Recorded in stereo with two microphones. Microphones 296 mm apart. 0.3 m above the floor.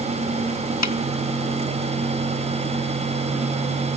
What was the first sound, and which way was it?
A snare drum, 70° left (ahead or behind).